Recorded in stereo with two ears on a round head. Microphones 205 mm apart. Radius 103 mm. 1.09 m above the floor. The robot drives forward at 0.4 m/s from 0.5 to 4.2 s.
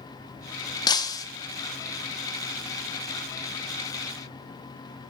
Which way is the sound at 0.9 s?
15° left (ahead or behind).